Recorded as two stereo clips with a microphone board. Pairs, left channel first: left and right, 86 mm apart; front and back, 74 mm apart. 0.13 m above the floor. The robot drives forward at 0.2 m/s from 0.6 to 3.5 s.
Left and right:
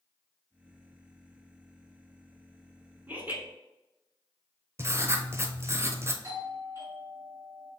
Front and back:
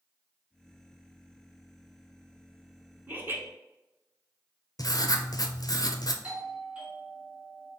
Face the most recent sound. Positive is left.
turn(degrees=-115)